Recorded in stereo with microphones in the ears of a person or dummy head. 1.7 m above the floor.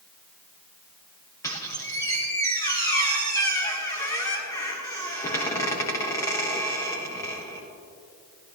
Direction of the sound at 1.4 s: 20° left (ahead or behind).